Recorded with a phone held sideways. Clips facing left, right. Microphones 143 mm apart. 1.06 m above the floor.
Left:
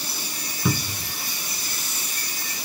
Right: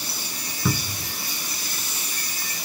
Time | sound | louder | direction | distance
0.7 | a cupboard door | left 1 dB | 5° left (ahead or behind) | ?